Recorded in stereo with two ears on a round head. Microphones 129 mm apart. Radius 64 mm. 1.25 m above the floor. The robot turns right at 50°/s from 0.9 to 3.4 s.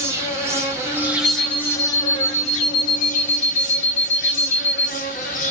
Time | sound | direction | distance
0.0 | an insect | 20° right | 0.9 m
1.2 | an alarm clock | 35° left | 1.1 m